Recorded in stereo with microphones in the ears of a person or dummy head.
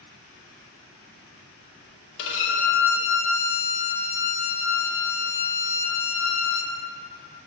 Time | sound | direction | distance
2.2 | a violin | 65° left (ahead or behind) | 0.6 m